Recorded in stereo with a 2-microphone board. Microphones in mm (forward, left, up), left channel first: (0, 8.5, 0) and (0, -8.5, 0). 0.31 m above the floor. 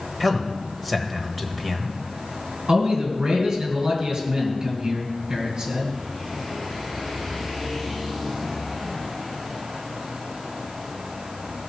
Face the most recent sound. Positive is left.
turn(degrees=-50)  # may be behind; listen again after turning